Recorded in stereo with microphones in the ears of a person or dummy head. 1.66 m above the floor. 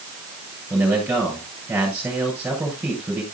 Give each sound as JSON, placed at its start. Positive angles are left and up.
{"t": 0.7, "sound": "a man speaking", "side_deg": -10, "distance_m": 7.0}